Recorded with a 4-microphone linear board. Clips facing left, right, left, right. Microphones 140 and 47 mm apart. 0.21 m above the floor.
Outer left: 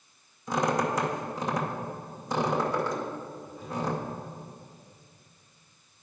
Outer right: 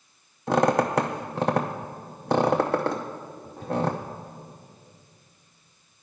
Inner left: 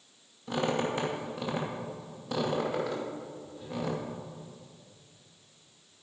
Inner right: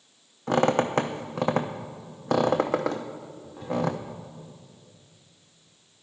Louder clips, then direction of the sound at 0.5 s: Outer right 5 dB, inner right 7 dB; 65° right (ahead or behind).